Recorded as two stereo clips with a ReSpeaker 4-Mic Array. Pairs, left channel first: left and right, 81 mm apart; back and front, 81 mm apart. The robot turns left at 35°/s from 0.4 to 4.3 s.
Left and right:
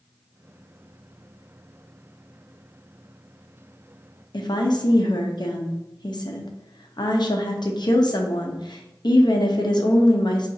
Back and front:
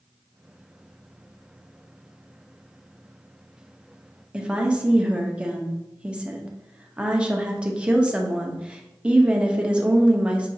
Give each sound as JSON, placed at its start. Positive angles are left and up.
{"t": 4.3, "sound": "a woman speaking", "azimuth_deg": 75, "distance_m": 0.6}